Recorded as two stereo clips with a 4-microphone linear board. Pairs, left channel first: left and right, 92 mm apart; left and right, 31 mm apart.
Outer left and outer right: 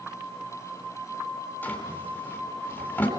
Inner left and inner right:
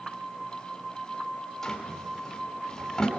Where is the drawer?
15° left (ahead or behind), 4 m.